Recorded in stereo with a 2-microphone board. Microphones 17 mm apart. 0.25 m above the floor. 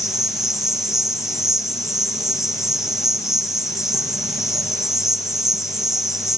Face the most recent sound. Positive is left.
turn(degrees=-20)  # may be behind; listen again after turning